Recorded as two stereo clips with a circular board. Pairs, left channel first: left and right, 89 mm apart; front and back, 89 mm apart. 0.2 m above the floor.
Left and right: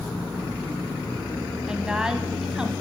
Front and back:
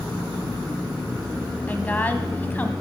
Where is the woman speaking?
25° right, 1.0 m.